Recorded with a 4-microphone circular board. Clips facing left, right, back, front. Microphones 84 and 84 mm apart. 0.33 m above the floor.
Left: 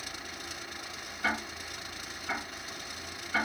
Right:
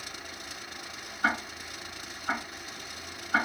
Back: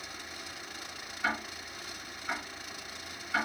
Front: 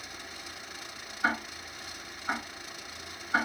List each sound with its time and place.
1.2 s ticking: 55° right, 2.5 m